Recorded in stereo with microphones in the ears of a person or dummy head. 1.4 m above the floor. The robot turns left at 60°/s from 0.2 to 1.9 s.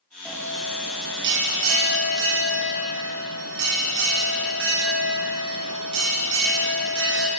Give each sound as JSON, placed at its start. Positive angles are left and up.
{"t": 0.2, "sound": "a bell", "azimuth_deg": -5, "distance_m": 1.4}